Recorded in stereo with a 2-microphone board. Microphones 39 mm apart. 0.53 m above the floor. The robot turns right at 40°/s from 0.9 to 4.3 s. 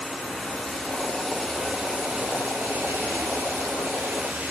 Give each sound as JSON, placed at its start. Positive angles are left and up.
{"t": 0.0, "sound": "running water", "azimuth_deg": 165, "distance_m": 2.5}